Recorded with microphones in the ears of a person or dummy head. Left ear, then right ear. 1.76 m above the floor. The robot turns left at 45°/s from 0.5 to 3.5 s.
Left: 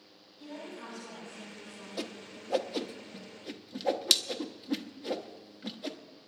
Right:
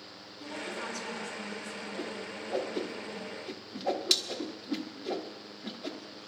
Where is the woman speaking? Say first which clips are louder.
Right 6 dB; 20° right, 7.5 m; by 1.9 s 85° right, 7.5 m.